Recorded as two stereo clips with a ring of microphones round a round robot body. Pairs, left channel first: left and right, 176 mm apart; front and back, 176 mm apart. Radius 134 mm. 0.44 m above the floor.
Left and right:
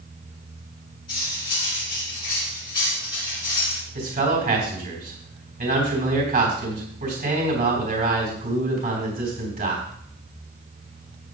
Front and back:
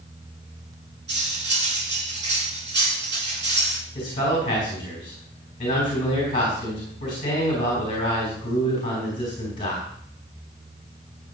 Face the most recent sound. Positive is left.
turn(degrees=-65)